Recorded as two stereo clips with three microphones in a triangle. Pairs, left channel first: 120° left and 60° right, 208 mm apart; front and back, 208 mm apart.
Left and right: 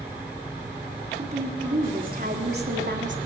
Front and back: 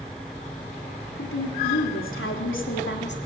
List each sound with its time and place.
1.2 s a woman speaking: straight ahead, 4 m; by 3.2 s 35° right, 3 m